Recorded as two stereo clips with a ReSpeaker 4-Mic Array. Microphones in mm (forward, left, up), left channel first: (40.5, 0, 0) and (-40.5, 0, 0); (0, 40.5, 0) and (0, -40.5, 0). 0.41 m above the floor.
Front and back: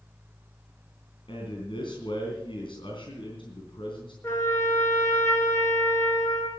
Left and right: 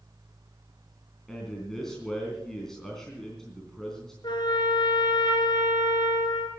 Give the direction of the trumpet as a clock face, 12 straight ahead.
10 o'clock.